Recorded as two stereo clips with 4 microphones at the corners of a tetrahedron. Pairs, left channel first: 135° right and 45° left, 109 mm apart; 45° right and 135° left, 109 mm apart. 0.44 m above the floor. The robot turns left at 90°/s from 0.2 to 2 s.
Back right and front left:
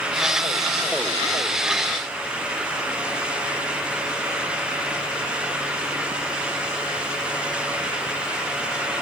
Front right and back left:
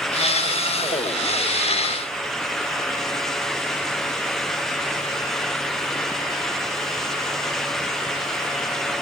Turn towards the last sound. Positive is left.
No sound to turn to.